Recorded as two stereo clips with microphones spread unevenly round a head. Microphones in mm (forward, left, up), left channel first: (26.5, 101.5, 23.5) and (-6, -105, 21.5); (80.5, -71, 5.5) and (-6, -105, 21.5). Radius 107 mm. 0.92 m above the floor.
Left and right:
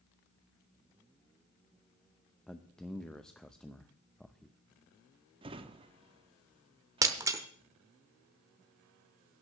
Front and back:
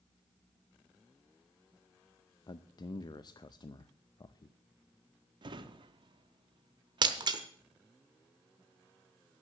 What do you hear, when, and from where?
2.5 s a man speaking: 5° right, 0.5 m
5.4 s a drawer: 165° right, 0.5 m
7.0 s breaking glass: 170° right, 0.8 m